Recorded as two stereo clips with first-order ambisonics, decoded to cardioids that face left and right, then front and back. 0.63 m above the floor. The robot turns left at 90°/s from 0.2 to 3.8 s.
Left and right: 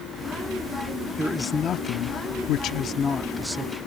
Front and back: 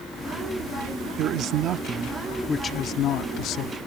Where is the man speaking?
165° right; by 3.8 s 40° right.